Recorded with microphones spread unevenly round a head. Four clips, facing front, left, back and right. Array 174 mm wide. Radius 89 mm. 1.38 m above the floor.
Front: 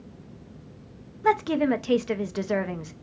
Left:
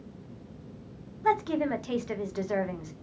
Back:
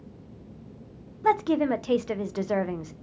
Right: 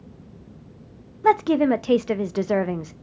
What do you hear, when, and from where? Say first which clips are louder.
1.2 s a woman speaking: right 8 dB, even; 75° right, 0.5 m